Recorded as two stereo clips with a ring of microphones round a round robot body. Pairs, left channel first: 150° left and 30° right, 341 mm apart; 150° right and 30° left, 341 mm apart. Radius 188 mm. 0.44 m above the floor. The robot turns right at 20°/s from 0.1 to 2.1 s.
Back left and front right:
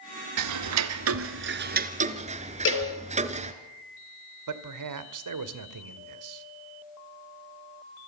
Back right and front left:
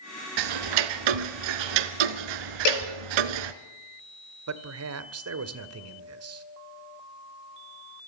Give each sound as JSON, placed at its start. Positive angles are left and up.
{"t": 0.4, "sound": "ticking", "azimuth_deg": 5, "distance_m": 1.3}
{"t": 2.6, "sound": "a cowbell", "azimuth_deg": -155, "distance_m": 5.0}
{"t": 4.5, "sound": "a man speaking", "azimuth_deg": -10, "distance_m": 2.0}